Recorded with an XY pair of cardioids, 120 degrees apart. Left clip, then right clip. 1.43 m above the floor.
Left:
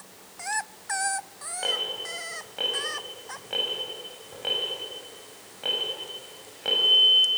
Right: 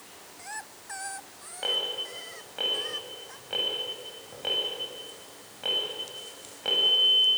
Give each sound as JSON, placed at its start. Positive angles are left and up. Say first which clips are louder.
{"t": 1.6, "sound": "an alarm", "louder": "left 1 dB", "azimuth_deg": 5, "distance_m": 6.5}